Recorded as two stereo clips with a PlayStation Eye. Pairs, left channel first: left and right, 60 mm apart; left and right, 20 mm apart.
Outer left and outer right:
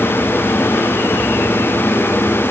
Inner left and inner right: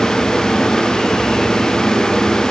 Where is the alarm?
I don't hear an alarm.